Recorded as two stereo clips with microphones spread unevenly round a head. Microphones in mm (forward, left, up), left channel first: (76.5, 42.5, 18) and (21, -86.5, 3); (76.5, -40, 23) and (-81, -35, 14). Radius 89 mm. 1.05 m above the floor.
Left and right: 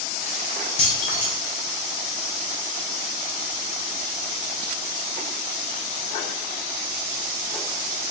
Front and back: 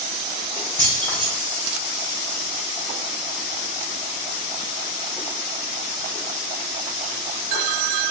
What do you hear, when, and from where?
0.8 s keys jangling: 75° left, 1.8 m